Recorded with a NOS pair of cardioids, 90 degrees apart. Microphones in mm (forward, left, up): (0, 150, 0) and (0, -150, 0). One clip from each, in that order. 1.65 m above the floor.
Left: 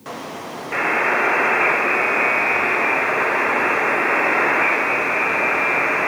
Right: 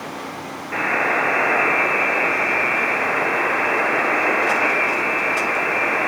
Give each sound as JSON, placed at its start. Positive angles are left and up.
{"t": 0.7, "sound": "a buzzer", "azimuth_deg": 15, "distance_m": 1.1}